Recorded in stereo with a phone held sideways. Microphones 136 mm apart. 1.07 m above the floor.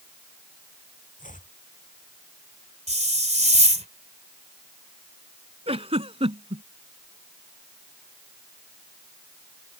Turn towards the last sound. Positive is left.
turn(degrees=-45)  # may be behind; listen again after turning